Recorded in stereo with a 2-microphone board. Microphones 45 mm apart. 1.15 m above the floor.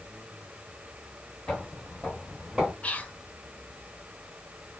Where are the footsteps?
15° left (ahead or behind), 1.7 m; by 2.7 s 20° right (ahead or behind), 1.4 m.